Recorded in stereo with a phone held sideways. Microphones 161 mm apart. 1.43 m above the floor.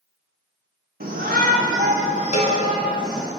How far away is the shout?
About 1.2 m.